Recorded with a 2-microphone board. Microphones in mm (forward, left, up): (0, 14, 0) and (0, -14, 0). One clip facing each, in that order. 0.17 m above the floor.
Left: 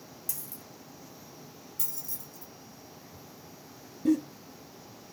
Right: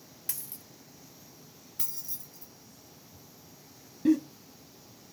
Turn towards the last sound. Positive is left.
turn(degrees=-30)  # may be behind; listen again after turning